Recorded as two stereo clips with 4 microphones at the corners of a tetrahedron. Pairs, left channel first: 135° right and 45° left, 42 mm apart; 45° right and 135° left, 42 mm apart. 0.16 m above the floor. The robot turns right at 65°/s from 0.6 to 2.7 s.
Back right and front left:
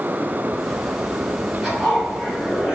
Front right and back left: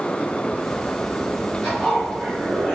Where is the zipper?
30° right, 1.5 m; by 2.8 s 35° left, 1.5 m.